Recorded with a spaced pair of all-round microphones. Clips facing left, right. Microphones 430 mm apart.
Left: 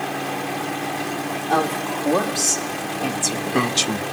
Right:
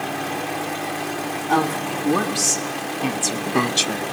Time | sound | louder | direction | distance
1.5 | a woman speaking | right 1 dB | 30° right (ahead or behind) | 2.5 m